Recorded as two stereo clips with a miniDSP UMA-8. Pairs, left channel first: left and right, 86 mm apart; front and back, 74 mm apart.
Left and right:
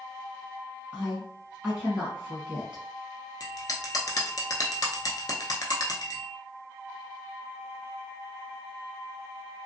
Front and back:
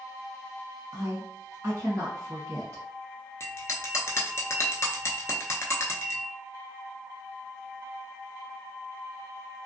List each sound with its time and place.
0.9 s a woman speaking: 165° right, 1.3 m
3.4 s a bell: 50° left, 0.6 m